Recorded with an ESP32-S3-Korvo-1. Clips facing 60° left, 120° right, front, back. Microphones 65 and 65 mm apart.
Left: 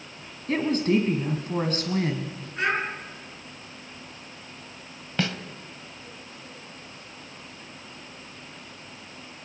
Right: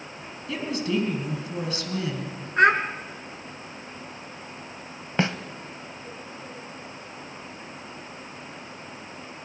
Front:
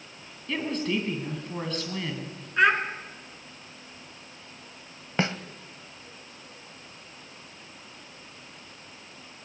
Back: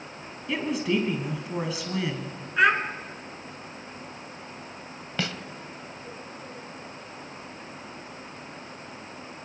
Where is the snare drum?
60° right, 1.0 m.